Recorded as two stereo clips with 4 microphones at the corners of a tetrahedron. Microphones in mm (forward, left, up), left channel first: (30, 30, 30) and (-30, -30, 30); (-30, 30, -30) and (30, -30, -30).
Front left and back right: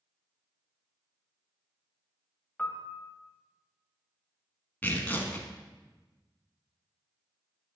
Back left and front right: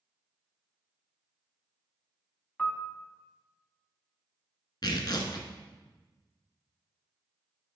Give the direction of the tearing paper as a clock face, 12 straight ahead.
8 o'clock.